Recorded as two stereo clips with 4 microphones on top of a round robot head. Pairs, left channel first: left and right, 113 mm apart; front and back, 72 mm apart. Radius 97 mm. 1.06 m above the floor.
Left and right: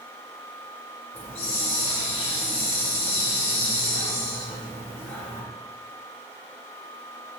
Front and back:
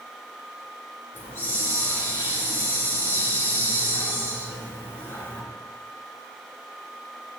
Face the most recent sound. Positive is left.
turn(degrees=60)